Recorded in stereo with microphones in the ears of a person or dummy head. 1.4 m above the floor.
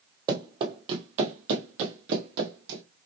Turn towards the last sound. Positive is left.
turn(degrees=-50)  # may be behind; listen again after turning